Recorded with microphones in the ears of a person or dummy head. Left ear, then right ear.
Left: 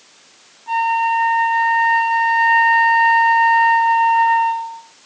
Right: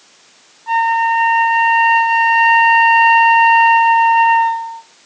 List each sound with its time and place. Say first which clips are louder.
0.7 s a flute: right 3 dB; 80° right, 1.3 m